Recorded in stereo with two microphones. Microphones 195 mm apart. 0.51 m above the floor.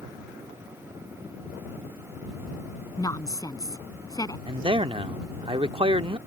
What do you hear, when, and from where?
3.0 s a woman speaking: 20° left (ahead or behind)
4.5 s a man speaking: 30° right (ahead or behind)